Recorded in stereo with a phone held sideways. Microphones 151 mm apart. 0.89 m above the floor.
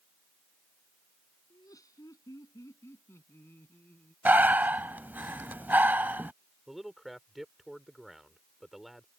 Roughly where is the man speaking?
Centre.